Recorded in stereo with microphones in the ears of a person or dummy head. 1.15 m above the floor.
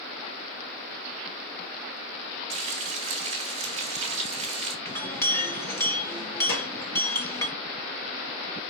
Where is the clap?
85° left, 3.5 m.